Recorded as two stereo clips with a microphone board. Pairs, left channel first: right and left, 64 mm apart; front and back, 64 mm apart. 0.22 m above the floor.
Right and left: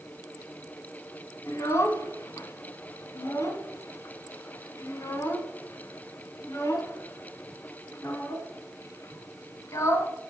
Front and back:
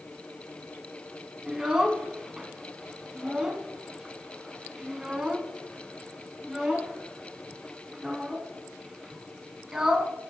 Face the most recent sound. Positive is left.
turn(degrees=-105)